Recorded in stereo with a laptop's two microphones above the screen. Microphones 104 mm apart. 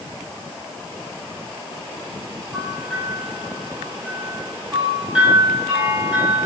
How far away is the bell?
About 3 m.